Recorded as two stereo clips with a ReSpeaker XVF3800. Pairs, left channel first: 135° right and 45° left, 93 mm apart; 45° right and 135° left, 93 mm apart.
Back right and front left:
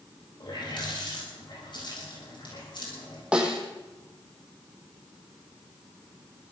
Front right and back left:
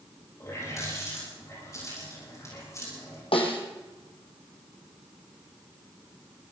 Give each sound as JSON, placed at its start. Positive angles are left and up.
{"t": 0.4, "sound": "a running tap", "azimuth_deg": -100, "distance_m": 8.5}
{"t": 3.3, "sound": "a snare drum", "azimuth_deg": -35, "distance_m": 2.0}